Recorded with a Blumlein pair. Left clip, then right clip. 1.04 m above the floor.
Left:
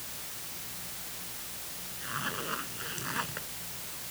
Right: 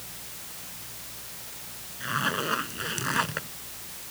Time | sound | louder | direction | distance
2.0 | a zipper | right 8 dB | 25° right | ?